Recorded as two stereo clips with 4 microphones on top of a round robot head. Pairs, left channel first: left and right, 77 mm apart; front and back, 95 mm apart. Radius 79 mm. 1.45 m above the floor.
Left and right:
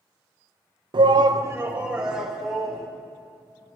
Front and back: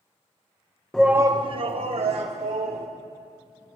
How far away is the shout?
About 0.7 m.